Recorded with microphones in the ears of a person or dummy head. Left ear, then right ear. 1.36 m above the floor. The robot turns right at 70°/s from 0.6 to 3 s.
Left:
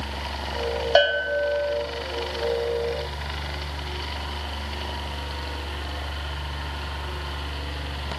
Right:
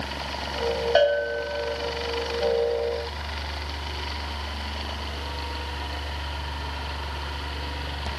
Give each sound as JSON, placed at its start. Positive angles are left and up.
{"t": 0.9, "sound": "a bell", "azimuth_deg": 10, "distance_m": 1.7}